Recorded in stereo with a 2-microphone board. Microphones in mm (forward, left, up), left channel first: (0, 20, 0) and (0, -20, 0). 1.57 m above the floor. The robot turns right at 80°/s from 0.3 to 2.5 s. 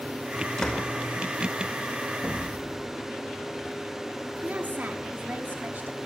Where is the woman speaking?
50° right (ahead or behind), 4.5 m.